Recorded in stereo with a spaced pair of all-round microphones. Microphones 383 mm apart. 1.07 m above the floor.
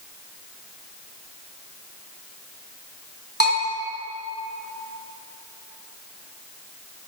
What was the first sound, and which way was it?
A bell, 25° right (ahead or behind).